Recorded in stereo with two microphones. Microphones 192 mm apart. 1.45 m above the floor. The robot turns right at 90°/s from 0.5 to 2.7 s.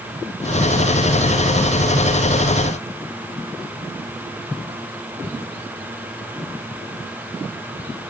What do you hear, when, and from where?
Only background noise.